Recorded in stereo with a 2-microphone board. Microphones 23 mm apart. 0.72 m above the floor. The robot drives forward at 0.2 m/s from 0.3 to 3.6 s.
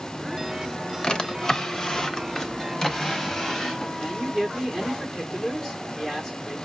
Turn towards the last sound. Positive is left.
turn(degrees=20)  # may be behind; listen again after turning